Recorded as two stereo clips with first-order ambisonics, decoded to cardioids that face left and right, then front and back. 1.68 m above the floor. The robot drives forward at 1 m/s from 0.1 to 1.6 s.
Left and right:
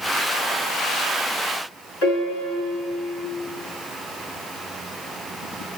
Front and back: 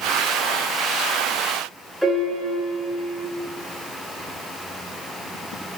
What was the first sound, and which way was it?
A piano, 95° left.